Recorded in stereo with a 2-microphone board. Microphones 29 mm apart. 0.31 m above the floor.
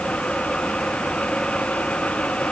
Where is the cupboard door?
No cupboard door in this recording.